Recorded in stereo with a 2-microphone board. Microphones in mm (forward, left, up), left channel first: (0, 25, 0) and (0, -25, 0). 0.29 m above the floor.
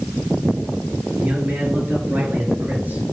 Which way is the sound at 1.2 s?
25° right (ahead or behind).